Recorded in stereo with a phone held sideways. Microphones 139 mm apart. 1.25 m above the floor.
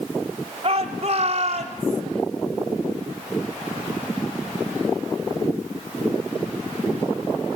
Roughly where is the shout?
Right.